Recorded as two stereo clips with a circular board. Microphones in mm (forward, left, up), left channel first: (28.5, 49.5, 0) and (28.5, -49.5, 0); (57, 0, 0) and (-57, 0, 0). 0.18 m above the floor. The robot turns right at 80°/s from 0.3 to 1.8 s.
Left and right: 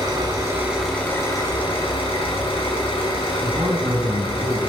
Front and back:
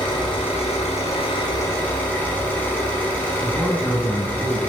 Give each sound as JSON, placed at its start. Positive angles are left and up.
{"t": 0.0, "sound": "an engine running", "azimuth_deg": -45, "distance_m": 3.0}
{"t": 3.4, "sound": "a man speaking", "azimuth_deg": -70, "distance_m": 2.0}